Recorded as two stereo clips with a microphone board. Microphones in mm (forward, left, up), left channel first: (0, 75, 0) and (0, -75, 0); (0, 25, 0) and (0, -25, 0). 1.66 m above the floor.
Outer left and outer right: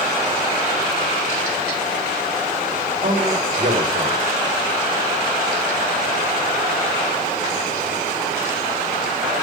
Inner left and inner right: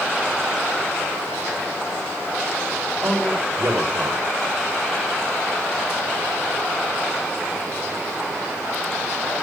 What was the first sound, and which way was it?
A man speaking, 55° right (ahead or behind).